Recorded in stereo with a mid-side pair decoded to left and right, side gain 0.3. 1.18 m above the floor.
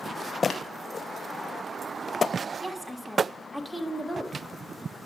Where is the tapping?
65° left, 1.6 m.